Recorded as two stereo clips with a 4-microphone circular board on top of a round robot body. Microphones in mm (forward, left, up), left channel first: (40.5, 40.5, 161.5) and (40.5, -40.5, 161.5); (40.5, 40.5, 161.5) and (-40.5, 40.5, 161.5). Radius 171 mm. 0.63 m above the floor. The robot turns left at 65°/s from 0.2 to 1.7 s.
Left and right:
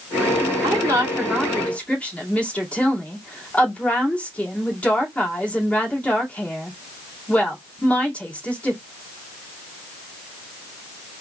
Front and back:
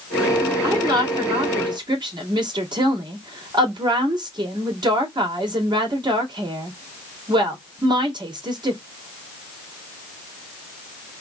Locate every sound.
0.6 s a woman speaking: 125° right, 2.5 m; by 8.8 s 165° left, 2.5 m